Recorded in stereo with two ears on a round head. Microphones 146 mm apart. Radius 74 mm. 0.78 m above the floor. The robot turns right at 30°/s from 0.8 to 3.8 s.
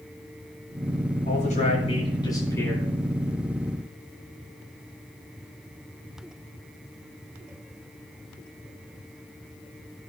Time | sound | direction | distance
1.2 | a man speaking | 125° left | 8.5 m